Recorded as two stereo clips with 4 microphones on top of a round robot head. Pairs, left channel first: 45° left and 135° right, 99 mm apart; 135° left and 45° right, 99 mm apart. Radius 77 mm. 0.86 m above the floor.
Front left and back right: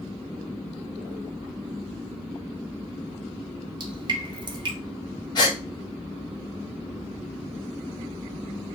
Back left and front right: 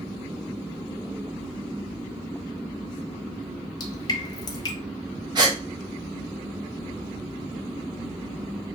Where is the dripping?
175° right, 1.5 m.